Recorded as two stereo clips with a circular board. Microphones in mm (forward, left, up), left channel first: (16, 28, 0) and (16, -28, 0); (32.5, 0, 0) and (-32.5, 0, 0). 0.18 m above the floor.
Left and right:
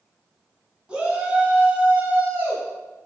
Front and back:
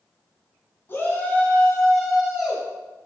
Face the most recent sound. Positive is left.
turn(degrees=-115)